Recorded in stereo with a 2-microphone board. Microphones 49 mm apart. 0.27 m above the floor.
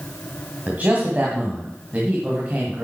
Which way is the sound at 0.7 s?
35° right (ahead or behind).